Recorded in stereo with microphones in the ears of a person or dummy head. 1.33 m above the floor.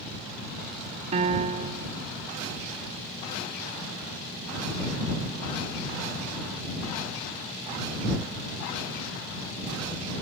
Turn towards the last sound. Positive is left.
turn(degrees=-35)  # may be behind; listen again after turning